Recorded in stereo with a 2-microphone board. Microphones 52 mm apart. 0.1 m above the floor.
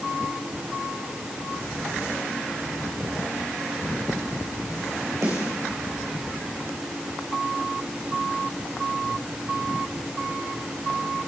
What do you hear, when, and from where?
5.2 s a snare drum: 80° right, 5.5 m